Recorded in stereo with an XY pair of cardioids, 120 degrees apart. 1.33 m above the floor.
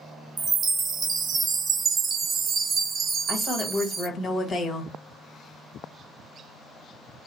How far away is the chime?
About 0.7 m.